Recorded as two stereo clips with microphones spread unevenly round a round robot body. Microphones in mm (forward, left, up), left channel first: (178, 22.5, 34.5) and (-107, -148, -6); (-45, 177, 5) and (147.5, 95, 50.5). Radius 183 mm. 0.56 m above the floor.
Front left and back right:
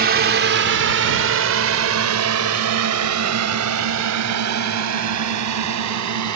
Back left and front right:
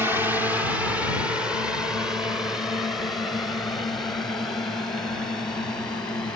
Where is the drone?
115° right; by 6.4 s 120° right.